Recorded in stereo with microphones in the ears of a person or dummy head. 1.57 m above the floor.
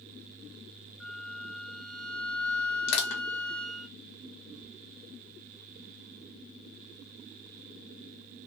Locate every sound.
1.0 s a flute: 5° left (ahead or behind), 0.7 m
2.9 s crushing: 70° left (ahead or behind), 1.3 m